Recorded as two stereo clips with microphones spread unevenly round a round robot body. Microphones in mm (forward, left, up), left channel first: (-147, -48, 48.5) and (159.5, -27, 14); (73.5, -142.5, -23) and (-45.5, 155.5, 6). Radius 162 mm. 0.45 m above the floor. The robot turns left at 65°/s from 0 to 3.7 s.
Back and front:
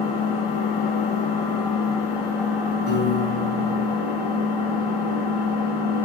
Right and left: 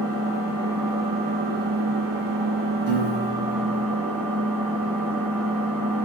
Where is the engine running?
105° right, 2 m; by 6.0 s 15° left, 2 m.